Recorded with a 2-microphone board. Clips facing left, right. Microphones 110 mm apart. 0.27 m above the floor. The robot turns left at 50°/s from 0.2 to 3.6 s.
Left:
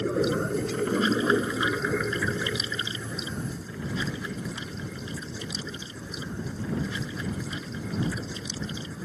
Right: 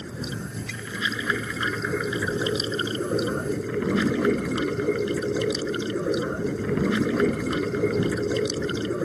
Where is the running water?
85° left; by 9.1 s 85° right.